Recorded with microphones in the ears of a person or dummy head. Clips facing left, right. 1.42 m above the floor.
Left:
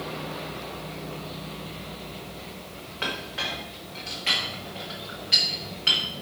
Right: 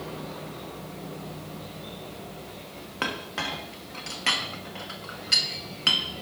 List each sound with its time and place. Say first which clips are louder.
3.0 s a clink: right 1 dB; 60° right (ahead or behind), 1.3 m